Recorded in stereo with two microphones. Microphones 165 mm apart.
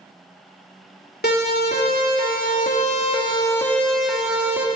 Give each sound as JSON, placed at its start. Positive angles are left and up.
{"t": 1.2, "sound": "a siren", "side_deg": 80, "distance_m": 3.0}